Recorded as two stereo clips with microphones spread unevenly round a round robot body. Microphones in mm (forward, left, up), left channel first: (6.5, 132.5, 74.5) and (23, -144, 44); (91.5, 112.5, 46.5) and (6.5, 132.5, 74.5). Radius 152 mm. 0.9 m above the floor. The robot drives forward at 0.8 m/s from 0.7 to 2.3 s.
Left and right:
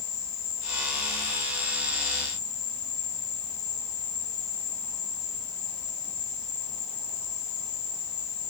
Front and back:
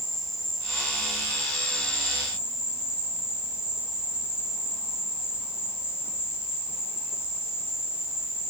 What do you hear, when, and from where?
0.0 s an insect: 40° left, 5.5 m; by 8.5 s 50° left, 5 m